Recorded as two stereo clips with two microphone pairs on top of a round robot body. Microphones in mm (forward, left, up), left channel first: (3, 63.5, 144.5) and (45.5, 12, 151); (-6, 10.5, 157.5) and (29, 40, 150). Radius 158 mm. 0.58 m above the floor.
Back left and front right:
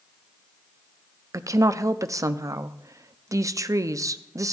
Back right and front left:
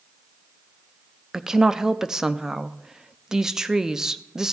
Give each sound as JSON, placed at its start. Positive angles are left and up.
{"t": 1.3, "sound": "a woman speaking", "azimuth_deg": -25, "distance_m": 0.8}